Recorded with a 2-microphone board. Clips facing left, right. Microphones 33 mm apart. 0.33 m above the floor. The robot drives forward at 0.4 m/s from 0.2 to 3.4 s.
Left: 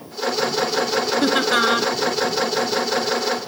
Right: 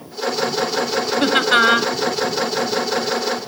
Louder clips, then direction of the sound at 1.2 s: Right 5 dB; 45° right (ahead or behind).